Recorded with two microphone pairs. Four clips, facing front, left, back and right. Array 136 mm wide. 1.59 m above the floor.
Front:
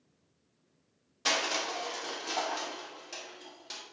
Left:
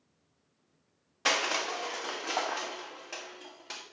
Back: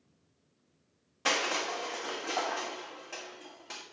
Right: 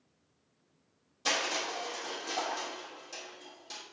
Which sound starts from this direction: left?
Crushing, at 1.2 s.